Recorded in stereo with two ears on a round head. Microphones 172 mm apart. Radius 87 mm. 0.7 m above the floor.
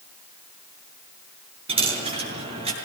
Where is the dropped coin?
30° right (ahead or behind), 6.5 m.